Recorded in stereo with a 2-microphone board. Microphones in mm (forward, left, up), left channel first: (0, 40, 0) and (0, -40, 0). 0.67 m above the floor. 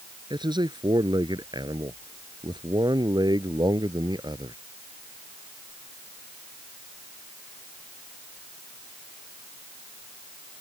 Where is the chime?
I don't hear a chime.